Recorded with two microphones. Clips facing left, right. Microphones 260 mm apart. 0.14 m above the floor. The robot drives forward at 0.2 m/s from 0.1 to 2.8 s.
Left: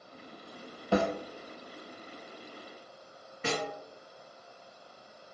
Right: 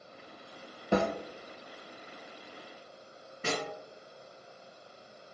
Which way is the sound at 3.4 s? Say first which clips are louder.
Left 1 dB; 40° right (ahead or behind).